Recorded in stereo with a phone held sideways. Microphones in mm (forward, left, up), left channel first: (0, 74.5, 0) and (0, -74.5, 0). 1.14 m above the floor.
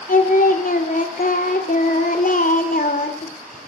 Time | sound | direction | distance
0.1 | singing | 65° left (ahead or behind) | 2.0 m